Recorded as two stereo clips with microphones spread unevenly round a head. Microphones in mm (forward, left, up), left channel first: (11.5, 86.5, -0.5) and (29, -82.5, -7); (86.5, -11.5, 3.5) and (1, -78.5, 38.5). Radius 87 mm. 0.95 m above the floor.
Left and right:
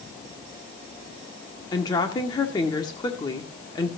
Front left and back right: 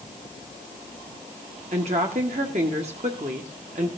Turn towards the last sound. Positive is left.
turn(degrees=165)